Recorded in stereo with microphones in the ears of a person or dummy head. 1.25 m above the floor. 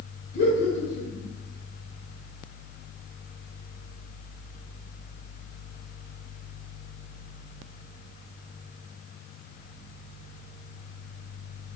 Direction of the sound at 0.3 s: 55° left (ahead or behind).